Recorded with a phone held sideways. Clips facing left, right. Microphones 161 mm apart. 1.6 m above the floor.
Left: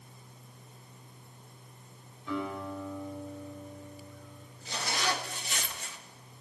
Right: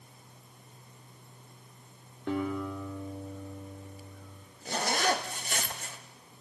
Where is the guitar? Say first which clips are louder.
Right 3 dB; 65° right (ahead or behind), 4.5 m.